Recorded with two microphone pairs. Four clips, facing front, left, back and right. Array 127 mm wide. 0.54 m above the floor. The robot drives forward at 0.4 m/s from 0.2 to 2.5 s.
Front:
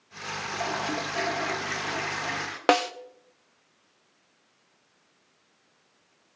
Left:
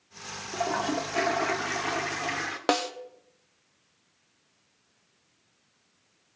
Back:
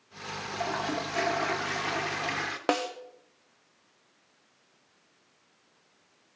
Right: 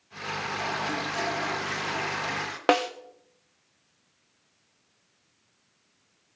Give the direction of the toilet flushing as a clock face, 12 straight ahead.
9 o'clock.